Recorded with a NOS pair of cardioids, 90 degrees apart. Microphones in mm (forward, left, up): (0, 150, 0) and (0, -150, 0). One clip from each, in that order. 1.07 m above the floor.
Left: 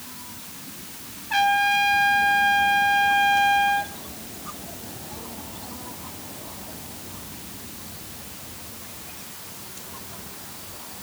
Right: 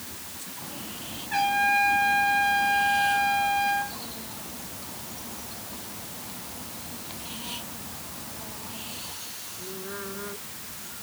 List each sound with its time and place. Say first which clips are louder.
1.3 s a trumpet: left 3 dB; 35° left, 2 m